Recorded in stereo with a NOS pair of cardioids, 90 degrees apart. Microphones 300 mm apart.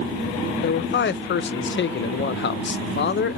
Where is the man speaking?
40° left, 0.6 m.